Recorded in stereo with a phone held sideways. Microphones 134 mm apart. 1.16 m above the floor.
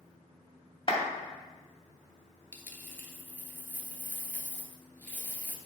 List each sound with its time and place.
0.9 s a clap: 40° left (ahead or behind), 2.5 m
2.5 s a dropped coin: 15° left (ahead or behind), 1.2 m